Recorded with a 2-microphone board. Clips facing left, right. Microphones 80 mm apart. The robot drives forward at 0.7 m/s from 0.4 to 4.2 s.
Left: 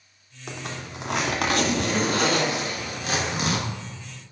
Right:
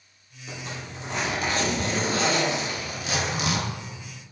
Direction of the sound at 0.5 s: 75° left (ahead or behind).